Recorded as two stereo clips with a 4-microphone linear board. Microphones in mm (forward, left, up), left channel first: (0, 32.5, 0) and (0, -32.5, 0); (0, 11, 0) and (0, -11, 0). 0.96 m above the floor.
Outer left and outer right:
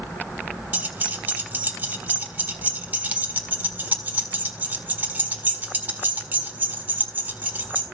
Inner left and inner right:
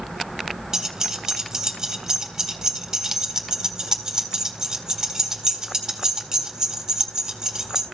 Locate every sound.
0.7 s keys jangling: 25° right (ahead or behind), 1.9 m